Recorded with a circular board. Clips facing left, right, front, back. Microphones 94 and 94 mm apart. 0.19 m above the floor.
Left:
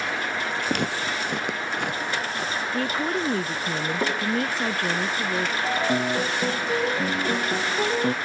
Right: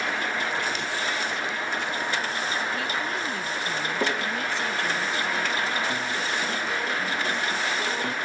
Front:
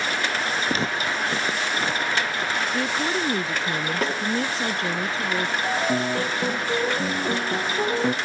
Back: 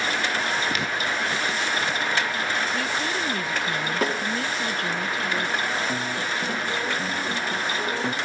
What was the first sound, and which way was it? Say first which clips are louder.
Footsteps: left 3 dB, front 1 dB; 60° left.